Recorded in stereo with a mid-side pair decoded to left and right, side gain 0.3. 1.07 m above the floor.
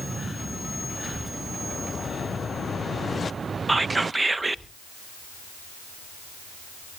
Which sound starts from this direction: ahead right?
Whispering, at 3.7 s.